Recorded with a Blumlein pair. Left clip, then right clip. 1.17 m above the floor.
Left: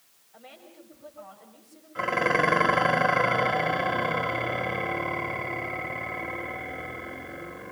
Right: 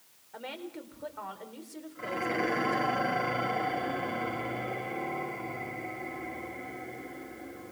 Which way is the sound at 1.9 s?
55° left.